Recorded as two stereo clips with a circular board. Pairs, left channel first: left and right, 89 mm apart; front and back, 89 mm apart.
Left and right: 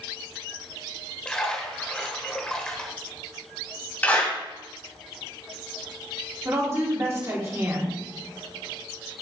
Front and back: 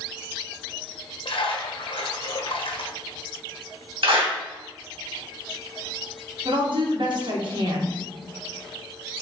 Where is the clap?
160° left, 2 m.